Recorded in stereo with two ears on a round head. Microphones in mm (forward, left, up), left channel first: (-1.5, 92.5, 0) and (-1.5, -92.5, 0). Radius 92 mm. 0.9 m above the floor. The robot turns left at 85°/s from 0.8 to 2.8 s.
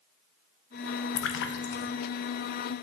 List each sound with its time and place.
1.2 s a splash: 80° left, 0.5 m; by 1.9 s 15° left (ahead or behind), 0.5 m